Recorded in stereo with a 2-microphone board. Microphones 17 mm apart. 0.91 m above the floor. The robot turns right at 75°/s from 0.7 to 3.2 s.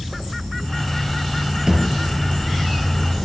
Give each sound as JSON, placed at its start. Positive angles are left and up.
{"t": 1.7, "sound": "a thud", "side_deg": -45, "distance_m": 7.0}